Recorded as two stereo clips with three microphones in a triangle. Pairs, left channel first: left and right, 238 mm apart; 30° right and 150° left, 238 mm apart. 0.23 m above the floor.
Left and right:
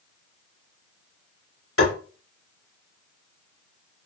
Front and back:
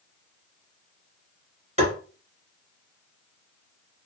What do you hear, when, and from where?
1.8 s tapping: 90° left, 2.0 m